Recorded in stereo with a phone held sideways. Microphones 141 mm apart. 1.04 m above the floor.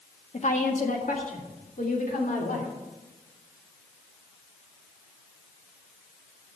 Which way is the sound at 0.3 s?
60° left (ahead or behind).